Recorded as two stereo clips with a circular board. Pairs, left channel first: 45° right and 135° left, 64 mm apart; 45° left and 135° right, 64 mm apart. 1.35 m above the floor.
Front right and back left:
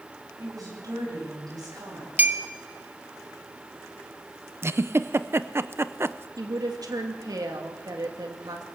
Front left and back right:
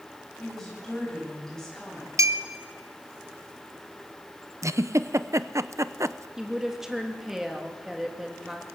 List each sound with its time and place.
0.4 s a woman speaking: 130° left, 10 m
2.2 s a clink: 165° right, 1.1 m
4.6 s a giggle: 175° right, 0.5 m
6.4 s a woman speaking: 140° left, 3 m